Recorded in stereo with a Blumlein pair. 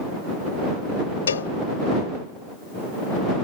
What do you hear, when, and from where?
1.3 s a cowbell: 70° left